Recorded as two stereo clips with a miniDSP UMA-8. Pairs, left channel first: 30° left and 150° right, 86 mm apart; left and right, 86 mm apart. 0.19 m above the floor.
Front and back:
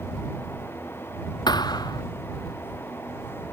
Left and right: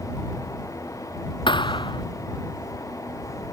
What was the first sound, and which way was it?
A thud, 65° left.